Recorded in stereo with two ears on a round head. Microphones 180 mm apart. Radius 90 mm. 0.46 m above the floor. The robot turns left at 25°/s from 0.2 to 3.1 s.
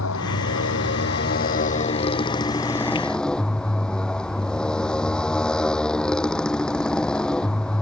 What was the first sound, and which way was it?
A motorcycle, 75° left.